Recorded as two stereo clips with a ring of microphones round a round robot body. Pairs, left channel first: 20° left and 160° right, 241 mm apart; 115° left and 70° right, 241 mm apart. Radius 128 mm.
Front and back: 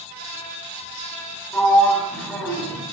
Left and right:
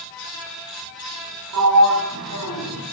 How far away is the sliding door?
About 4 m.